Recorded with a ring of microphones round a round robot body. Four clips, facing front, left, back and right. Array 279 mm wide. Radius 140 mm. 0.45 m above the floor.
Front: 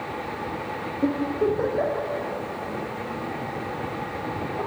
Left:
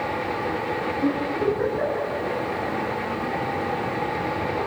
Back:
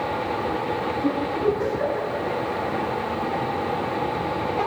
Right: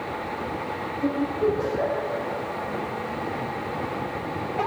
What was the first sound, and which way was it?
A giggle, 15° left.